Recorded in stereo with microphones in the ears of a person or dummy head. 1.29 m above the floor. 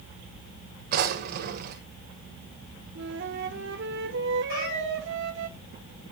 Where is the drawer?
50° right (ahead or behind), 1.7 m.